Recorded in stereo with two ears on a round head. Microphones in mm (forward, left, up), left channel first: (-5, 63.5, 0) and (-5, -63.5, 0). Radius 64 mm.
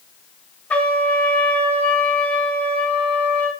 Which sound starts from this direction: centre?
A trumpet, at 0.7 s.